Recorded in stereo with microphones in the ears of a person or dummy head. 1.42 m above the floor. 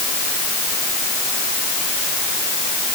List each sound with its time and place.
Only background noise.